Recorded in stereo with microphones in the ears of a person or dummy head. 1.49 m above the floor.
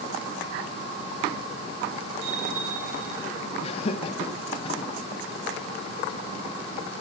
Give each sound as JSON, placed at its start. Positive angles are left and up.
{"t": 2.2, "sound": "a bicycle bell", "side_deg": -70, "distance_m": 6.0}
{"t": 3.6, "sound": "laughter", "side_deg": 40, "distance_m": 1.5}